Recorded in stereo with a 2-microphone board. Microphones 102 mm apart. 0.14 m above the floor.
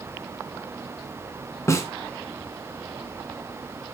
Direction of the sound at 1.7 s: 25° left (ahead or behind).